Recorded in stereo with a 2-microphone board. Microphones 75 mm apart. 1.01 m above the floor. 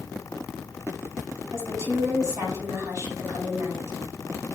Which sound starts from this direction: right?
A woman speaking, at 1.5 s.